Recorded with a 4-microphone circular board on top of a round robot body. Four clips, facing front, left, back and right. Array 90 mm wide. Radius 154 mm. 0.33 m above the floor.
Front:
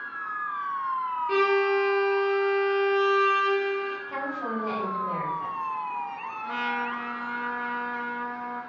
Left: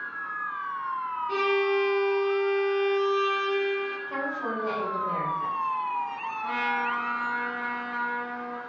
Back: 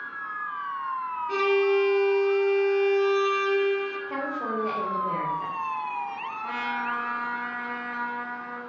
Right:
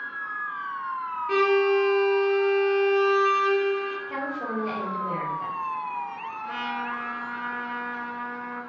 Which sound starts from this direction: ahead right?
A violin, at 1.3 s.